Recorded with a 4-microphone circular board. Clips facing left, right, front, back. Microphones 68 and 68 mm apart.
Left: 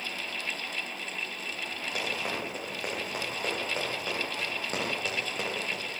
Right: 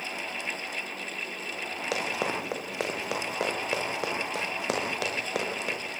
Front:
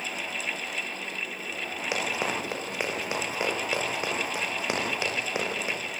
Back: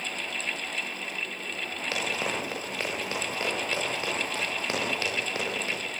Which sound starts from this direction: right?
Running footsteps, at 1.9 s.